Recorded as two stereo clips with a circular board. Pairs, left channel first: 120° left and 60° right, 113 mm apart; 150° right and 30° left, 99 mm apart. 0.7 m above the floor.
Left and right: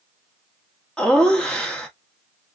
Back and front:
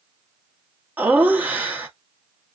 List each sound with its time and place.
1.0 s laughter: 50° left, 1.1 m